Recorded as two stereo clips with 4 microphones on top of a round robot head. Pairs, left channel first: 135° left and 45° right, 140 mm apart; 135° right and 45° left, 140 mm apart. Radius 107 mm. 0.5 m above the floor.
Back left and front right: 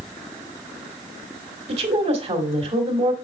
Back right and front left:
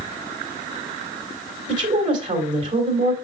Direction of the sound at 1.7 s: 5° right.